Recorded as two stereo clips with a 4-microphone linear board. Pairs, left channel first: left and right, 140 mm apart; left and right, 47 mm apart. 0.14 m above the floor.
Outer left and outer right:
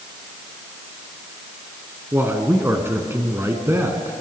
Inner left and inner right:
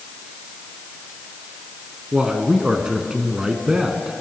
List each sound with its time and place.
2.1 s a man speaking: 20° right (ahead or behind), 1.8 m